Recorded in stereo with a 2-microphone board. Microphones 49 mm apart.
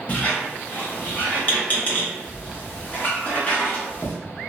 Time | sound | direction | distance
0.1 | a squeak | 30° left (ahead or behind) | 0.9 m